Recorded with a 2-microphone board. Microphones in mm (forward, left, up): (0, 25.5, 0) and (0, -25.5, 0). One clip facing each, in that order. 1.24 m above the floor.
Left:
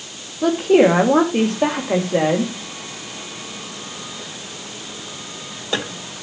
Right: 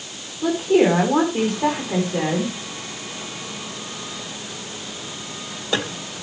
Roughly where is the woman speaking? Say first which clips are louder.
Left 3 dB; left.